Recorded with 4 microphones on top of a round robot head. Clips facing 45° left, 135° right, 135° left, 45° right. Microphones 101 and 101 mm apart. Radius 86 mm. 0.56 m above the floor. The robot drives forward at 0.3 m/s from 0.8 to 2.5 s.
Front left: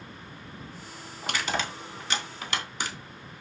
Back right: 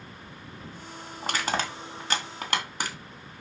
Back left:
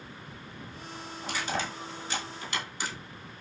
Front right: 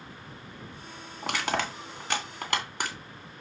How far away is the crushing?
About 3 m.